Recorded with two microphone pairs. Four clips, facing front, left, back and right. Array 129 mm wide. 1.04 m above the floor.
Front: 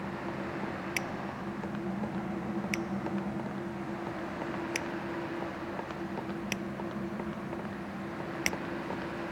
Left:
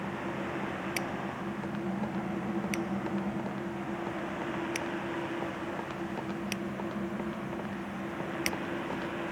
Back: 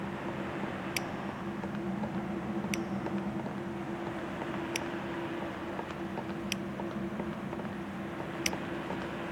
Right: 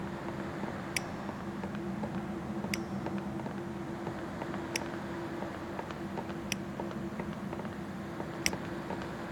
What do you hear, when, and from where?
1.0 s scissors: straight ahead